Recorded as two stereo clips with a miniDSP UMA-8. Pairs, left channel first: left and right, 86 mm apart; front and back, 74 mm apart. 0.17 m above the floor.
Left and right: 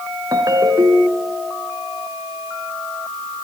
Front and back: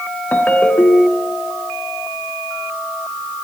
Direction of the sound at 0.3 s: 60° right.